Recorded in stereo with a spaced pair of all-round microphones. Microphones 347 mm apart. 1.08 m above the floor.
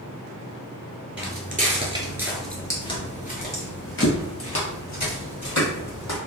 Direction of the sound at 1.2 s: 35° right (ahead or behind).